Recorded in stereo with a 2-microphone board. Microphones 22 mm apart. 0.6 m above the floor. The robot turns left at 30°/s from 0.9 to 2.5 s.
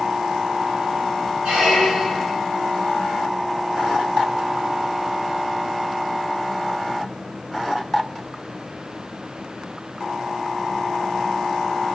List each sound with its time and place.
1.4 s a squeak: 65° right (ahead or behind), 2.5 m; by 2.4 s 40° right (ahead or behind), 2.5 m